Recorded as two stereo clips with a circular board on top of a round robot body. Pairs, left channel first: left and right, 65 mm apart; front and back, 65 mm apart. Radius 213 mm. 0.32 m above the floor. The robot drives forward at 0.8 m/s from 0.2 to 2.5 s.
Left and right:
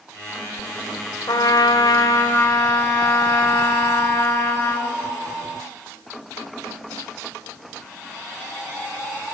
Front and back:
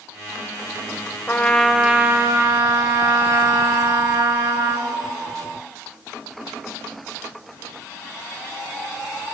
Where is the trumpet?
65° left, 0.8 m; by 5.0 s 130° left, 1.0 m.